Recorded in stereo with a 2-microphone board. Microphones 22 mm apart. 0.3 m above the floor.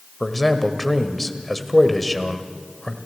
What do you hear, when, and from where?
0.2 s a man speaking: 10° left (ahead or behind), 1.3 m